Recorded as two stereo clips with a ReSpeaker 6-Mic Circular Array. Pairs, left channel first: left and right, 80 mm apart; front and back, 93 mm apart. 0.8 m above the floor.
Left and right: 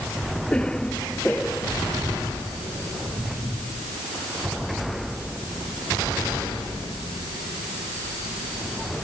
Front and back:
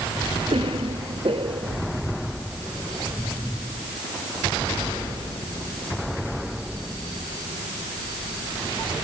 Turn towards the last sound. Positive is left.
turn(degrees=170)